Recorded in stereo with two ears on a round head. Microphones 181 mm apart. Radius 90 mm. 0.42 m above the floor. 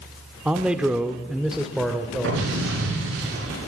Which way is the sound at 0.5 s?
5° right (ahead or behind).